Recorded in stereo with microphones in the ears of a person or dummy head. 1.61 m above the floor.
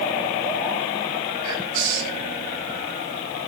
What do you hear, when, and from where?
1.4 s whispering: 75° right (ahead or behind), 9 m